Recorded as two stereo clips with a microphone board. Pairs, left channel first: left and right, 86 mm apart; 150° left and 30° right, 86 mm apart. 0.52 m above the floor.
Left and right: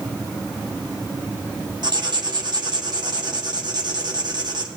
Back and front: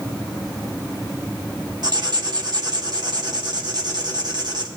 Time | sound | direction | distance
1.8 | writing | 60° right | 2 m